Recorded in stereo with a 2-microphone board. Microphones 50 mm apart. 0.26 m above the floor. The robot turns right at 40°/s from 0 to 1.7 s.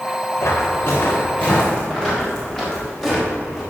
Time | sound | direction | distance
0.4 | footsteps | 75° left (ahead or behind) | 4.5 m